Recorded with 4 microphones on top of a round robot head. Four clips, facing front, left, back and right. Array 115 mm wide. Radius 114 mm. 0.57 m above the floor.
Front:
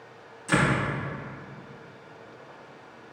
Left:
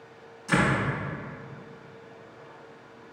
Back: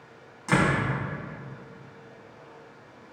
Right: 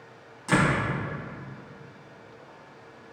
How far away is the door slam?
About 3 m.